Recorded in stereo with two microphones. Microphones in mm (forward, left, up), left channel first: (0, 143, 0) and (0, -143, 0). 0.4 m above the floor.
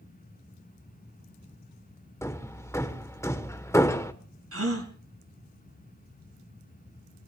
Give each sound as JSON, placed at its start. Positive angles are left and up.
{"t": 2.2, "sound": "hammering", "side_deg": 10, "distance_m": 1.0}
{"t": 4.5, "sound": "a gasp", "side_deg": -55, "distance_m": 2.0}